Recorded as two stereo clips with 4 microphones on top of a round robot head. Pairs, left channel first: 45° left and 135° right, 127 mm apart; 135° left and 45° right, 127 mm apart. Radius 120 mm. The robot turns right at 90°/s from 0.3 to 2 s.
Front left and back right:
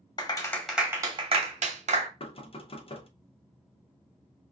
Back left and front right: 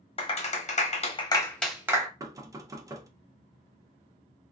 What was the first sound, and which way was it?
A clap, 100° left.